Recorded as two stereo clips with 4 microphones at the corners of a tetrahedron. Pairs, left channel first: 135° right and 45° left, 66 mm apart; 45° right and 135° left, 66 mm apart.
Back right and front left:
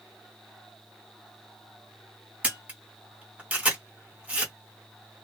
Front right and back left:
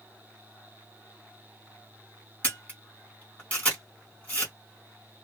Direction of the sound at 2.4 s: 5° right.